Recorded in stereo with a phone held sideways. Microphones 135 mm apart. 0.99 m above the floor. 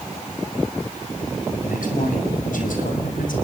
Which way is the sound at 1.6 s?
85° left.